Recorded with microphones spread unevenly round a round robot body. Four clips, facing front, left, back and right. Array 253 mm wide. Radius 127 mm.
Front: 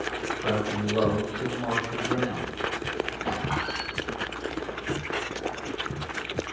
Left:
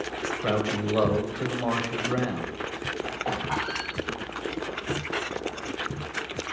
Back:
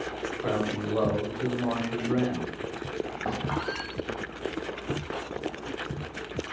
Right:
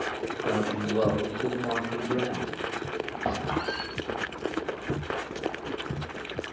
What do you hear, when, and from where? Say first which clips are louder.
0.4 s a man speaking: left 1 dB, front 1 dB; 85° left, 2.5 m
3.2 s a squeak: right 1 dB, even; 110° right, 3.5 m